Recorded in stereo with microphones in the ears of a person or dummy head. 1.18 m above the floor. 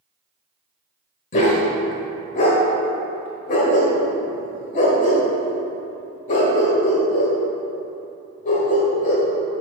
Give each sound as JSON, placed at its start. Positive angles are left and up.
{"t": 1.3, "sound": "a dog barking", "side_deg": 40, "distance_m": 1.3}